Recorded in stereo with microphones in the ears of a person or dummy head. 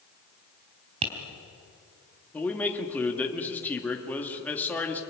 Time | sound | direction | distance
1.0 | tapping | 35° right (ahead or behind) | 3.5 m
2.3 | a man speaking | 10° left (ahead or behind) | 2 m